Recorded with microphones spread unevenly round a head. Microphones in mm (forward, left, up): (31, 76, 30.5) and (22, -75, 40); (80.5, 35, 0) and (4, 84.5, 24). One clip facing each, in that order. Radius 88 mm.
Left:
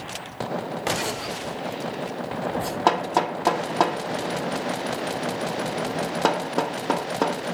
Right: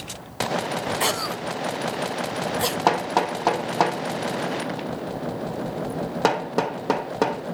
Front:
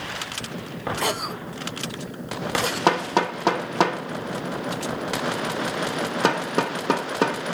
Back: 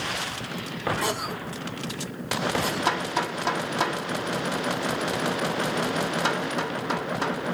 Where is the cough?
90° right, 0.6 m.